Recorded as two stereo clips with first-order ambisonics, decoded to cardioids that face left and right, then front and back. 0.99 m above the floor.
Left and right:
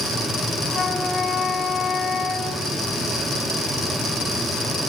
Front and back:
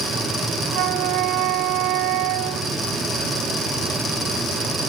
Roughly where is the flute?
Behind.